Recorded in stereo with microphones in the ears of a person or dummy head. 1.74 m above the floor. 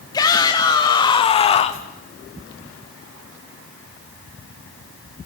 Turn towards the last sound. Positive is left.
turn(degrees=35)  # may be behind; listen again after turning